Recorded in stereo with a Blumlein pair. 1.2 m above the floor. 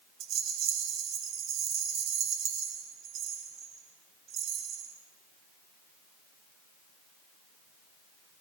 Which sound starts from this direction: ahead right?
A rattle, at 0.2 s.